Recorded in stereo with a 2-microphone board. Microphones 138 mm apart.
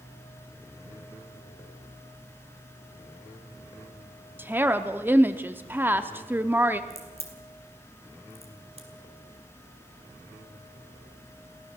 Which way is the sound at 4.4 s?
15° right (ahead or behind).